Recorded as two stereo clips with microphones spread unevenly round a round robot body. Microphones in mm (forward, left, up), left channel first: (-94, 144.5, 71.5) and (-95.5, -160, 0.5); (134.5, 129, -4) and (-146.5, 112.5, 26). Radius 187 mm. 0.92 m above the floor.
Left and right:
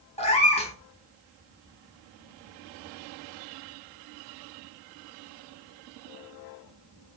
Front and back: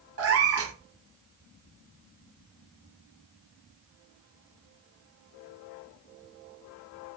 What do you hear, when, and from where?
0.2 s a cat meowing: 150° left, 0.8 m